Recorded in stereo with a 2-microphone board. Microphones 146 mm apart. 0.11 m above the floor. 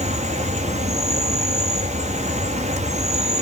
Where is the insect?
50° right (ahead or behind), 1.0 m.